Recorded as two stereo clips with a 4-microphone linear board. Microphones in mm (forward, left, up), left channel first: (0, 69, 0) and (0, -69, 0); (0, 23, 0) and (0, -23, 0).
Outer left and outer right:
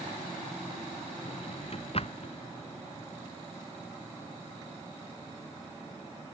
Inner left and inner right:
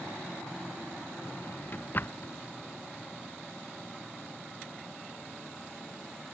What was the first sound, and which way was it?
A drawer, 45° left (ahead or behind).